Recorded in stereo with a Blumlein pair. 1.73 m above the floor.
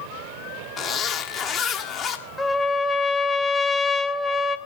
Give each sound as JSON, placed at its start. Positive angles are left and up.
{"t": 0.8, "sound": "a zipper", "azimuth_deg": 30, "distance_m": 1.4}
{"t": 2.4, "sound": "a trumpet", "azimuth_deg": 5, "distance_m": 0.9}